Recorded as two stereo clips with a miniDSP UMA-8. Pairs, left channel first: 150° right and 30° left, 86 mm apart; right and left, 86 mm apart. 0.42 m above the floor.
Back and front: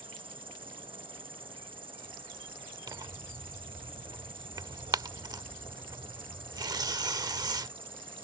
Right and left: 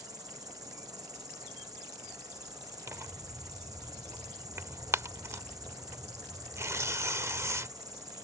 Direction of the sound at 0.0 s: 45° left.